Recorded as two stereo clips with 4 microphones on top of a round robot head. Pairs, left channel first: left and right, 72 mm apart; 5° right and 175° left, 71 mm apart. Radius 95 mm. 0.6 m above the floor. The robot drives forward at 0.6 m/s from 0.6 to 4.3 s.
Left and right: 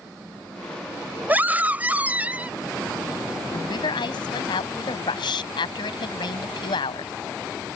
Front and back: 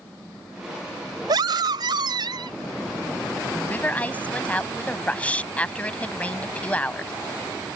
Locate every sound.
1.3 s a scream: 155° right; by 2.6 s 160° right
3.5 s a woman speaking: 65° left; by 7.1 s 70° left